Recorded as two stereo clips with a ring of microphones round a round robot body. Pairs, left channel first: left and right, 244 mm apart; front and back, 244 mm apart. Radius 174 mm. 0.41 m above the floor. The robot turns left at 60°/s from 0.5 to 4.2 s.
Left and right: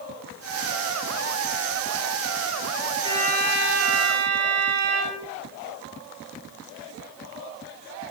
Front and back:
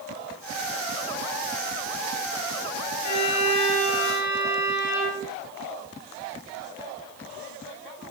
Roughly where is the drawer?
I don't hear a drawer.